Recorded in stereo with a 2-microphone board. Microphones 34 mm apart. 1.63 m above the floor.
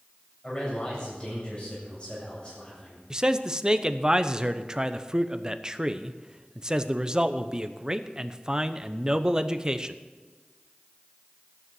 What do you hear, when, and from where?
0.4 s a man speaking: 30° left (ahead or behind), 7.5 m
3.1 s a man speaking: 20° right (ahead or behind), 0.8 m